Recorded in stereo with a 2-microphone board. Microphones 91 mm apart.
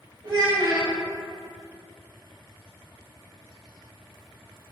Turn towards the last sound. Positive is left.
turn(degrees=-45)  # may be behind; listen again after turning